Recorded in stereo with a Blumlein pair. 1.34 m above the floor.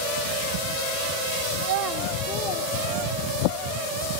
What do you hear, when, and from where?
1.6 s a child speaking: 65° right, 0.9 m; by 3.6 s 60° left, 2 m